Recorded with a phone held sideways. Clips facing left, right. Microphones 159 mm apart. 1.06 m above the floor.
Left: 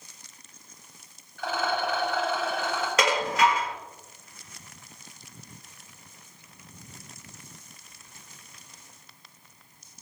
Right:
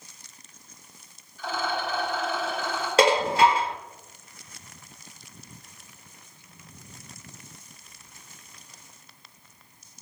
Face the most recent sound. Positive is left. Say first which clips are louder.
# right 5 dB
turn(degrees=-30)  # may be behind; listen again after turning